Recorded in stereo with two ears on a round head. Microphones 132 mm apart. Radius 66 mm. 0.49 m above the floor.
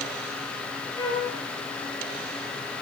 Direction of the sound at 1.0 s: 25° left (ahead or behind).